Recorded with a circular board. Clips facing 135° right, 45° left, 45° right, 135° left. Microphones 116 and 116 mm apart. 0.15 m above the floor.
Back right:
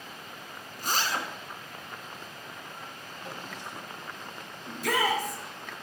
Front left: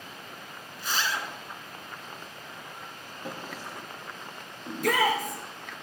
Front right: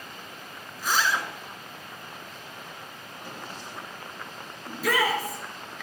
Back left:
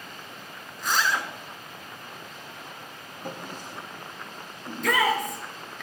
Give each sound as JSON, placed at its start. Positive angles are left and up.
{"t": 0.8, "sound": "a zipper", "azimuth_deg": -125, "distance_m": 1.2}
{"t": 3.2, "sound": "a drawer", "azimuth_deg": 95, "distance_m": 2.5}
{"t": 4.7, "sound": "a shout", "azimuth_deg": 40, "distance_m": 3.0}